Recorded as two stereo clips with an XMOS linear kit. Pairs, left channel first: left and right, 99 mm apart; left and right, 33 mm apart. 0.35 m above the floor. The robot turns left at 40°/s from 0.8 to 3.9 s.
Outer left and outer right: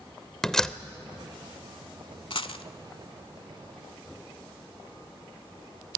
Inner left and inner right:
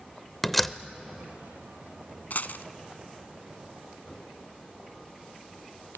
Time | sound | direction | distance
0.4 | a door slam | 5° left (ahead or behind) | 0.7 m
2.3 | a dropped coin | 60° left (ahead or behind) | 0.7 m